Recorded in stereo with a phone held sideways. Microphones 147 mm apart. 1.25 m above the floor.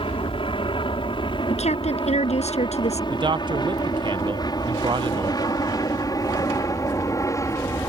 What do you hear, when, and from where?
0.0 s an aircraft: 35° left (ahead or behind); by 7.9 s 20° left (ahead or behind)
1.5 s a woman speaking: 50° left (ahead or behind)
3.1 s a man speaking: 30° right (ahead or behind)